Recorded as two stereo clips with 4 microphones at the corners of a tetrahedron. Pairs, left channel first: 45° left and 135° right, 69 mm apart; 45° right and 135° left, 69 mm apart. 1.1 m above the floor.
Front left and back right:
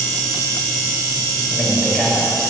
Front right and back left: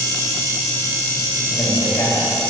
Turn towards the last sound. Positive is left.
turn(degrees=-35)